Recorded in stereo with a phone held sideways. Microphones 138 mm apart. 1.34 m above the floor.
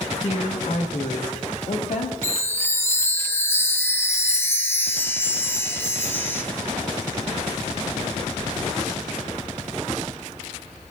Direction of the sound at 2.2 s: 15° left (ahead or behind).